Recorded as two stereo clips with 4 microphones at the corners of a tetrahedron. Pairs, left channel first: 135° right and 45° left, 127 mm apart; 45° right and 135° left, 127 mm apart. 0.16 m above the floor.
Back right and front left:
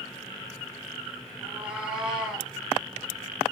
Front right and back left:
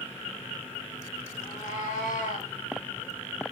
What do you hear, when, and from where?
1.4 s a cat meowing: 35° right, 5 m; by 2.5 s 45° right, 4.5 m